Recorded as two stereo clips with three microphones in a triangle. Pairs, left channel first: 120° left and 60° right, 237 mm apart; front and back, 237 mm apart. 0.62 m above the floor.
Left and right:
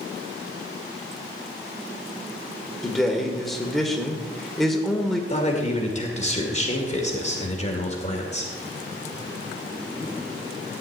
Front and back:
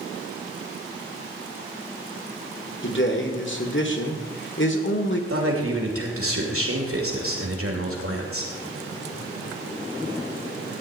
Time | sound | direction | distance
2.8 | a man speaking | 30° left | 1.8 m
5.3 | a man speaking | straight behind | 2.5 m